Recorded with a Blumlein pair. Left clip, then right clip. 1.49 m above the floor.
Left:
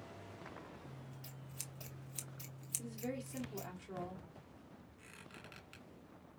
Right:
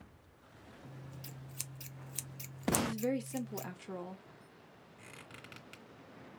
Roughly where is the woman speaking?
Ahead.